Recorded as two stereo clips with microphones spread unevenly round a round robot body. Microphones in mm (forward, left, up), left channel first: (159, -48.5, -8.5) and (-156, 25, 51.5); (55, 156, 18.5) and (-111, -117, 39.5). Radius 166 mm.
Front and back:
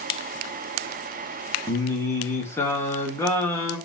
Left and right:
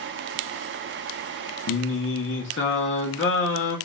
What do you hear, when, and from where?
1.7 s singing: 50° left, 1.3 m